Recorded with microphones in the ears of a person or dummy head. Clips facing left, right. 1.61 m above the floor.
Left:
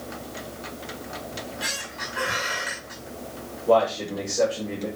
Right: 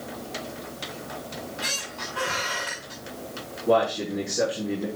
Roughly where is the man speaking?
Centre.